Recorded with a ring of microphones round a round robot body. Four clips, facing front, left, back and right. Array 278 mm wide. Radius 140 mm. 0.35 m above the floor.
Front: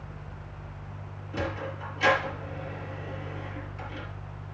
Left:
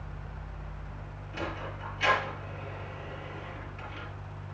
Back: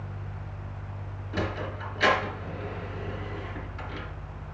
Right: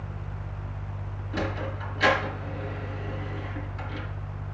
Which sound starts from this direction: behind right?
A sliding door, at 1.3 s.